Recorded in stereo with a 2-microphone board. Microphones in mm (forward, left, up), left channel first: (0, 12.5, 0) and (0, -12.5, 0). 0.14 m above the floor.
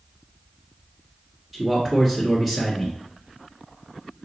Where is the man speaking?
15° right (ahead or behind), 1.3 m.